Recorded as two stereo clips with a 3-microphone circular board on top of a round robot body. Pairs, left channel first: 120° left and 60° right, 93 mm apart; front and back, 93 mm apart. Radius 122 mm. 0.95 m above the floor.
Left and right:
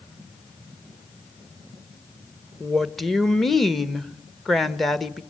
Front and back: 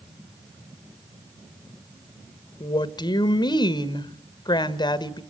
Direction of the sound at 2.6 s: 30° left.